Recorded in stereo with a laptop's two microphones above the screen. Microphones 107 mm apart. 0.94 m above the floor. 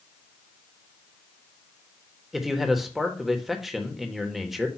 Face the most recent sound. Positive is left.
turn(degrees=0)  # may be behind; listen again after turning